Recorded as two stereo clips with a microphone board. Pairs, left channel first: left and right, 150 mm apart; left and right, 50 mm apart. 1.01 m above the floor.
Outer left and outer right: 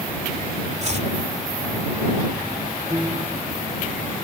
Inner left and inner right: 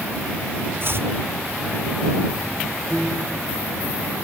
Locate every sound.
0.8 s chopping: 50° right (ahead or behind)
2.9 s a piano: 25° right (ahead or behind)